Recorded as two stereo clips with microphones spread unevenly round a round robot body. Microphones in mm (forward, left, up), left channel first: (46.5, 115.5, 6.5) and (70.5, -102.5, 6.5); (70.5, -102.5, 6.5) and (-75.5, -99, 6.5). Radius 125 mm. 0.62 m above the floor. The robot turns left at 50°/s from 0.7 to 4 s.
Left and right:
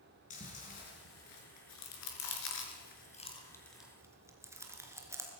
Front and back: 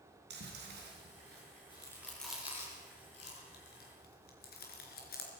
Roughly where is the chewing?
Behind.